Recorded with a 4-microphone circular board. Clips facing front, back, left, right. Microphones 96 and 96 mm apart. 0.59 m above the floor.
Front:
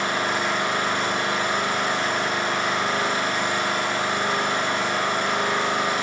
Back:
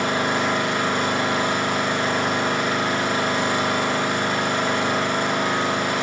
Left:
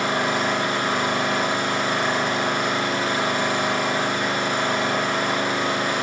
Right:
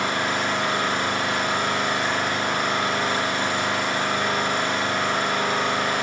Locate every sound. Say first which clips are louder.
0.0 s an engine running: back 2 dB, left 2 dB; 150° left, 6.5 m